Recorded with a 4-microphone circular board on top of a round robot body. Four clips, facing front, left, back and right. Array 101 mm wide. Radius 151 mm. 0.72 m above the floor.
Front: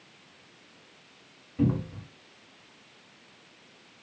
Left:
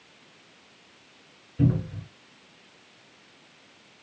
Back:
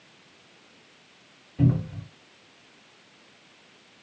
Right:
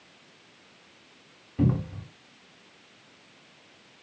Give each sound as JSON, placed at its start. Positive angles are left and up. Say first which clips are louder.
{"t": 1.6, "sound": "a cupboard door", "louder": "left 1 dB, back 2 dB", "azimuth_deg": -90, "distance_m": 1.7}